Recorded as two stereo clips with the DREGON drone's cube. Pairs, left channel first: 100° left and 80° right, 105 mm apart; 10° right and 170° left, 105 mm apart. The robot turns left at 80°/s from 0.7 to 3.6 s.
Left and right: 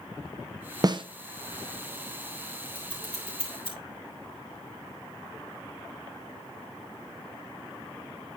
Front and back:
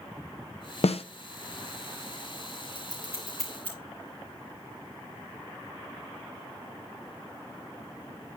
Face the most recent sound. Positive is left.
turn(degrees=70)